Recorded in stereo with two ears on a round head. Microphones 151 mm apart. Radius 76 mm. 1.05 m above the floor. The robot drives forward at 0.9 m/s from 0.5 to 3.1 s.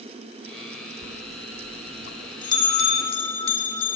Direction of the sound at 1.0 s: 70° left (ahead or behind).